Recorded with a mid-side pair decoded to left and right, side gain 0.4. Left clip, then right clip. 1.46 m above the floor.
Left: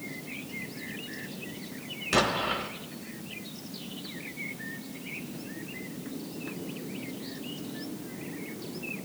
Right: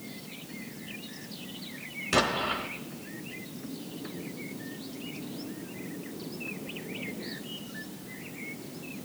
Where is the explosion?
5° right, 1.3 m.